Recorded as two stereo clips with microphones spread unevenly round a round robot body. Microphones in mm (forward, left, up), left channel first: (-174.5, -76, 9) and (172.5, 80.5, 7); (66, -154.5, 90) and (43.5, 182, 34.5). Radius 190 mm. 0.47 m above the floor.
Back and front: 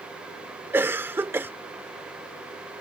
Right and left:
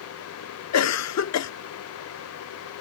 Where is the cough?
55° right.